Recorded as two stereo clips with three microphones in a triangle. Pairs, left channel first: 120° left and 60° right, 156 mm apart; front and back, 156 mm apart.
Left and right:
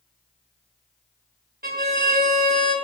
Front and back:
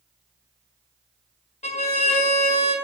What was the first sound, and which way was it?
A violin, 40° right.